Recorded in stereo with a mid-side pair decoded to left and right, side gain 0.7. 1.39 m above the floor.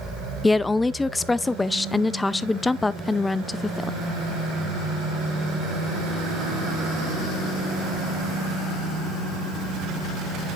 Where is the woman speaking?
15° left, 0.5 m.